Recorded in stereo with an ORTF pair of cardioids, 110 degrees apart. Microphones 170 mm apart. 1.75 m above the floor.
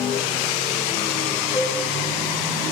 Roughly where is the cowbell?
Left.